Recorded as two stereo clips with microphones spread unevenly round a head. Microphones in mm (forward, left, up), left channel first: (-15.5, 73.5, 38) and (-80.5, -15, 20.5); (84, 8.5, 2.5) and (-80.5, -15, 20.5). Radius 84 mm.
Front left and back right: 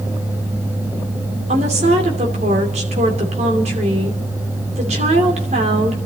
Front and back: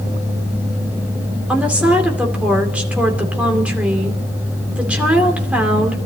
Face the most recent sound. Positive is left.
turn(degrees=-90)